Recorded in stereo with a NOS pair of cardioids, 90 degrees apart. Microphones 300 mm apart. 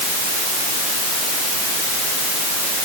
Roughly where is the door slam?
I don't hear a door slam.